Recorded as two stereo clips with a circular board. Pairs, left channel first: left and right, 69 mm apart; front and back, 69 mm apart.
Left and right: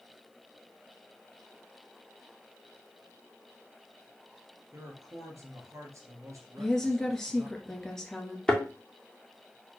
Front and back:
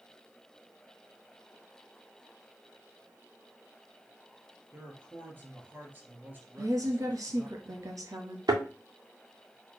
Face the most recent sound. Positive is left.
turn(degrees=170)